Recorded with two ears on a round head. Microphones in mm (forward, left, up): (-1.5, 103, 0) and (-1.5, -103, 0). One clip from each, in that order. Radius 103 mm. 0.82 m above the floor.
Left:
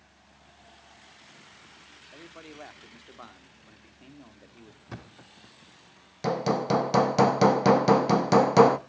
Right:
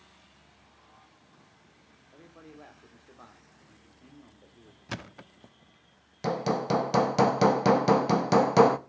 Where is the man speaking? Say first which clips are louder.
Left 5 dB; 75° left (ahead or behind), 1.9 m.